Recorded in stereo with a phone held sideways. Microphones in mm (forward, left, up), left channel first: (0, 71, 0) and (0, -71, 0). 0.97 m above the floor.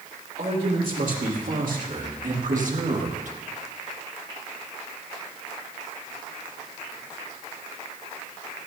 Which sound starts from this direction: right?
A man speaking, at 0.4 s.